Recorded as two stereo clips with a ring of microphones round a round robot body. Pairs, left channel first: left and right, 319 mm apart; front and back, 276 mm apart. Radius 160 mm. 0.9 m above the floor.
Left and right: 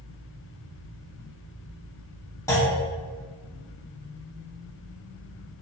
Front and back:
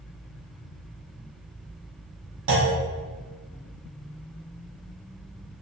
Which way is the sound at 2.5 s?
170° left.